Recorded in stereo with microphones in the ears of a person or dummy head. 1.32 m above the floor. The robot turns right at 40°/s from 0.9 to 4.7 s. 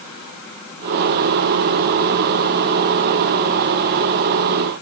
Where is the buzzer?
No buzzer in this recording.